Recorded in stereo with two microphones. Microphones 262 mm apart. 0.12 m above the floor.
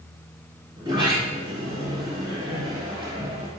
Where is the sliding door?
20° right (ahead or behind), 1.7 m.